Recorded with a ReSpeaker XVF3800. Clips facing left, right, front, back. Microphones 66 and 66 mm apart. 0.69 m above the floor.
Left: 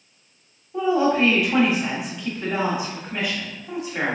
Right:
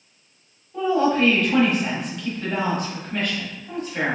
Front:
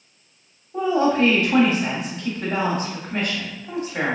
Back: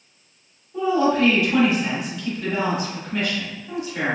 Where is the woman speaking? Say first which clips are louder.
Even, even; 15° left, 1.1 m.